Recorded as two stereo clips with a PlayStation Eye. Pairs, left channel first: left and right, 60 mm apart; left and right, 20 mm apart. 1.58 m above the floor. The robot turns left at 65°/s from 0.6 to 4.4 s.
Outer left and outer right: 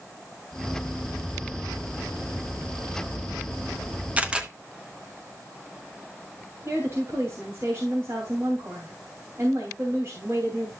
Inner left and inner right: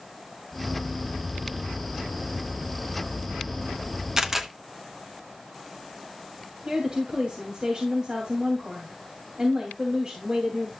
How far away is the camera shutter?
About 1.0 m.